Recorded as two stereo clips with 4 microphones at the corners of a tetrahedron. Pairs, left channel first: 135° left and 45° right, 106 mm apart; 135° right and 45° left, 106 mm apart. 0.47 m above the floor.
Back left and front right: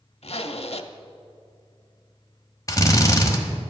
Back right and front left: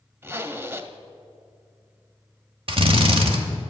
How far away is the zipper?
About 0.6 m.